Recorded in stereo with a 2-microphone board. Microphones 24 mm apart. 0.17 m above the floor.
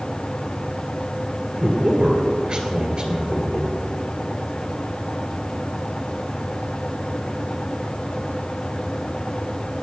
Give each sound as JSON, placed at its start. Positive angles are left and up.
{"t": 1.6, "sound": "a man speaking", "side_deg": -35, "distance_m": 2.5}